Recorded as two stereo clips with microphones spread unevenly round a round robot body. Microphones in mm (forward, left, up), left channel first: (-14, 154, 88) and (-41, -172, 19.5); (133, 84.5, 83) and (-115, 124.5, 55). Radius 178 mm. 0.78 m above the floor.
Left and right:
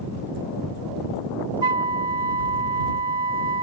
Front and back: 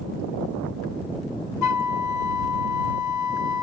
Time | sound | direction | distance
1.6 | a flute | 20° right | ?